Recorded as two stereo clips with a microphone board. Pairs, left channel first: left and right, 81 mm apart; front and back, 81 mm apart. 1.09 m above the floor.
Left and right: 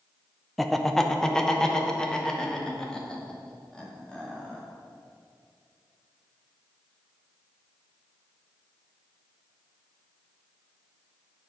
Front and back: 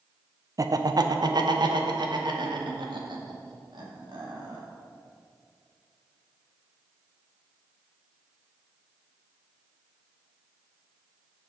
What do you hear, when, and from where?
0.6 s laughter: straight behind, 0.7 m; by 4.6 s 170° left, 3 m